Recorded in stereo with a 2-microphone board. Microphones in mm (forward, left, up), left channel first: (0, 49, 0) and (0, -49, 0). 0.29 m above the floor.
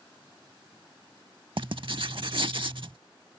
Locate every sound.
1.6 s writing: 60° right (ahead or behind)